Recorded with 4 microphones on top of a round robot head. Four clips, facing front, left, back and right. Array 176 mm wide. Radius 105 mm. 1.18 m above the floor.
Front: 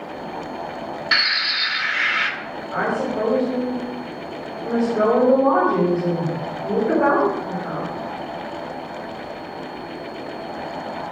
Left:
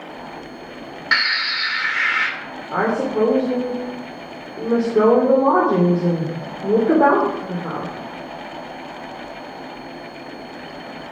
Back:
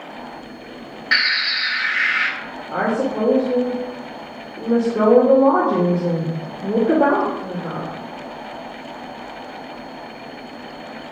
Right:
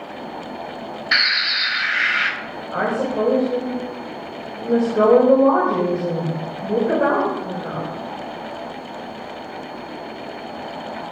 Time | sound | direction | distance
1.1 | a bird | 65° left | 1.5 m
2.7 | a woman speaking | 125° left | 3 m